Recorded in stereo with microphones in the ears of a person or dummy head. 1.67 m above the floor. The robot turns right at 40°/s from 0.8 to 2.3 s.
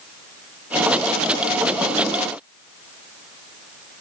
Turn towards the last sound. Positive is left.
No sound to turn to.